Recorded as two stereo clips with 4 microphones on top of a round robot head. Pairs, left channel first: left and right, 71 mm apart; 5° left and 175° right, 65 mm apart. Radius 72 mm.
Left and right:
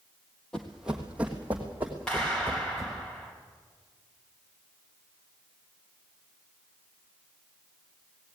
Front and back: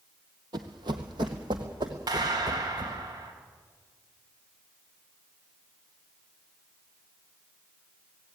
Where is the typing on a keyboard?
I don't hear typing on a keyboard.